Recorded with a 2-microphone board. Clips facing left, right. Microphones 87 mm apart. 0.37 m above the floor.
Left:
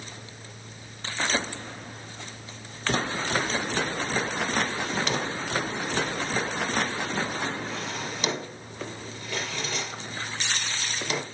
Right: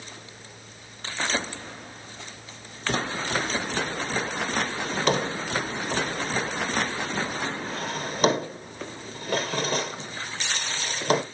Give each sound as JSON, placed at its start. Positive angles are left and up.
{"t": 4.8, "sound": "a drawer", "side_deg": -45, "distance_m": 3.0}